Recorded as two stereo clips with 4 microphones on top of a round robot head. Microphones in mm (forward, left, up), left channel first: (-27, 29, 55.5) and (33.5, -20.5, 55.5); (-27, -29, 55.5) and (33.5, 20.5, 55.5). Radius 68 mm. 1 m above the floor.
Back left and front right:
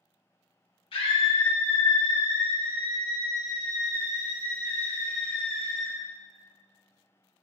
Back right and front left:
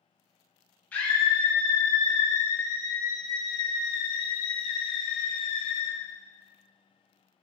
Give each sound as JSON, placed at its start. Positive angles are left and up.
{"t": 0.9, "sound": "a scream", "azimuth_deg": 145, "distance_m": 3.0}